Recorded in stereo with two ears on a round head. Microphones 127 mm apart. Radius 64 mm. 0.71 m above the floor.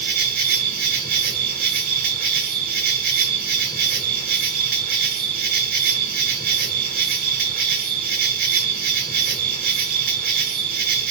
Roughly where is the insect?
Right.